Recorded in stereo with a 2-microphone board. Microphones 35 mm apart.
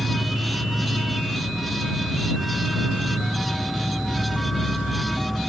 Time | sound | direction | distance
0.0 | an insect | 5° right (ahead or behind) | ?